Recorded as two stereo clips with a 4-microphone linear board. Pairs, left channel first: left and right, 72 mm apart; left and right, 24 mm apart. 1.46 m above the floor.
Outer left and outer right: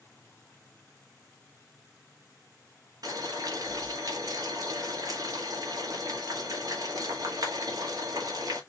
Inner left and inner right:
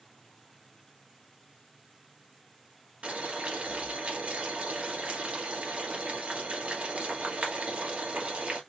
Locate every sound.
3.0 s boiling: 60° right (ahead or behind), 1.6 m